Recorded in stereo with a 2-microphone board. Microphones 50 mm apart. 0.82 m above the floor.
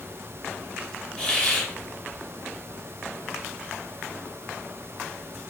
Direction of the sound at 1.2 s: 20° left (ahead or behind).